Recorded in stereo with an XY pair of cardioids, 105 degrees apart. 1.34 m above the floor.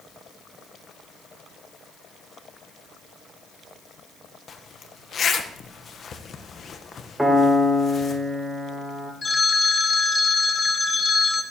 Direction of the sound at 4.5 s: 45° left.